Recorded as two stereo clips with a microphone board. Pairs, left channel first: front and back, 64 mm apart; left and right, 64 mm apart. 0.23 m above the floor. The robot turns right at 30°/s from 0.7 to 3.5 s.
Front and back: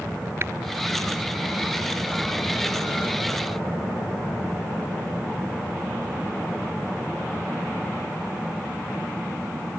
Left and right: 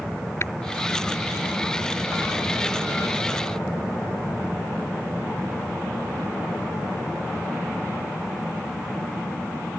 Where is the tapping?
135° left.